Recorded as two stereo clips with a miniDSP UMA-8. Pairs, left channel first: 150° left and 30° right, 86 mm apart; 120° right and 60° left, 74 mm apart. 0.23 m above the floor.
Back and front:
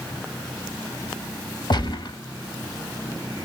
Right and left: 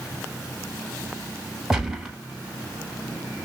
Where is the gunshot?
145° left, 0.9 m.